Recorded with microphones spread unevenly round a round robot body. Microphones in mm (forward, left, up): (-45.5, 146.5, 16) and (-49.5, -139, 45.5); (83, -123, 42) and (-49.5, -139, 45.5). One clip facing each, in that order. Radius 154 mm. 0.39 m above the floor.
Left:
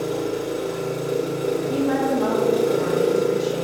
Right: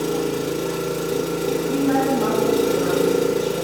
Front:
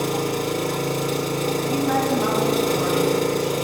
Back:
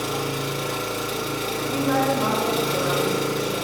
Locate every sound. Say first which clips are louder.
0.0 s an engine running: right 2 dB, front 4 dB; 25° right, 0.7 m
1.7 s a woman speaking: right 3 dB, back 1 dB; 20° left, 3.5 m